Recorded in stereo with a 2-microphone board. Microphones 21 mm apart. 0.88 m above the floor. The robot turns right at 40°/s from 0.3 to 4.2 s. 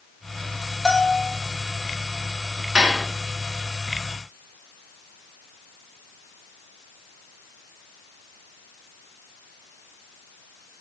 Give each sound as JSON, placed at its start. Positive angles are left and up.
{"t": 0.8, "sound": "a bell", "side_deg": 15, "distance_m": 0.9}
{"t": 2.8, "sound": "dishes clattering", "side_deg": -55, "distance_m": 1.7}